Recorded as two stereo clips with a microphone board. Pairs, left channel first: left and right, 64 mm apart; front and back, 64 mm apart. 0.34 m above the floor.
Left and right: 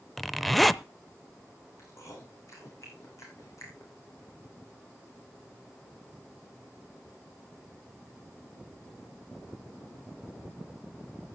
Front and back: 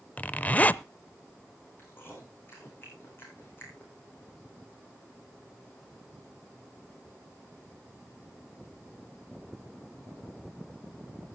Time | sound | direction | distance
0.2 | a zipper | 5° left | 0.5 m
1.8 | chewing | 55° left | 6.5 m